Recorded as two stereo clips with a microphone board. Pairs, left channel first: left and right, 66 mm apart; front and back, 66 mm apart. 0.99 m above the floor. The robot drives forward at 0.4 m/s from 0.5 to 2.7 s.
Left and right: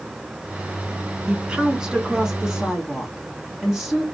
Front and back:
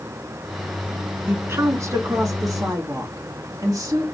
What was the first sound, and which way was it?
A woman speaking, 155° right.